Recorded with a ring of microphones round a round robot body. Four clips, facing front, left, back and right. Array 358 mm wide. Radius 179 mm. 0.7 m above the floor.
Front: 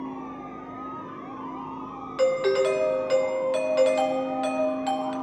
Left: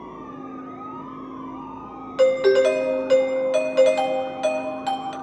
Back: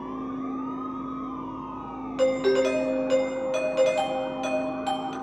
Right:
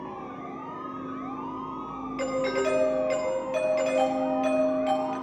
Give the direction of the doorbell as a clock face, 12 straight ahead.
9 o'clock.